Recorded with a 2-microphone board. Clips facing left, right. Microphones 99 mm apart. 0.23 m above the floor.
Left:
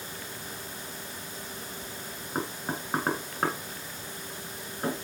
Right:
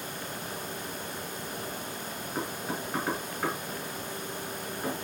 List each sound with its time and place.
2.4 s knocking: 60° left (ahead or behind), 2.5 m